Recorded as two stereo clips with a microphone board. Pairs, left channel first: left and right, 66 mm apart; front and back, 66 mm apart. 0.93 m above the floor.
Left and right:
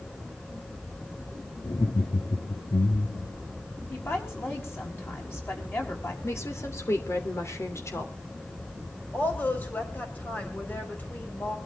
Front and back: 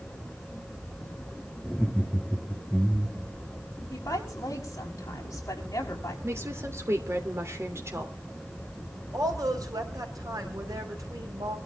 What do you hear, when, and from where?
1.6 s laughter: 90° left, 1.6 m
3.9 s a woman speaking: 40° left, 5.5 m
6.2 s a woman speaking: 135° left, 3 m
9.1 s a woman speaking: 155° left, 5 m